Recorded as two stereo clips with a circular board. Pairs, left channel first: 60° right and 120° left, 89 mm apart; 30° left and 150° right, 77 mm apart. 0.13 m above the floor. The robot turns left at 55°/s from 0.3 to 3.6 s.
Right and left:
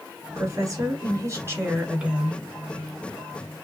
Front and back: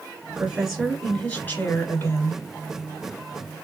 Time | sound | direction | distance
0.3 | a woman speaking | 145° left | 1.6 m